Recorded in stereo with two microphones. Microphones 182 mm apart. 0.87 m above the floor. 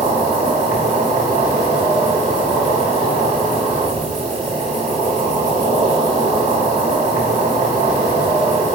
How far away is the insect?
About 1.6 m.